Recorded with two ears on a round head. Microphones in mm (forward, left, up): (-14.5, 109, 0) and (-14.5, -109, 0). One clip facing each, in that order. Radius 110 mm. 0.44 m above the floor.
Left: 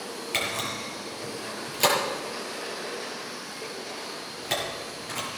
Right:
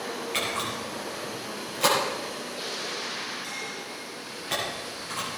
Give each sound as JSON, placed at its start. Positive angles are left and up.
{"t": 0.3, "sound": "a camera shutter", "side_deg": 50, "distance_m": 6.0}